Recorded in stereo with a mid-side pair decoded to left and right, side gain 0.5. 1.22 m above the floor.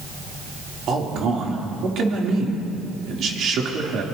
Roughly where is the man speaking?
Ahead right.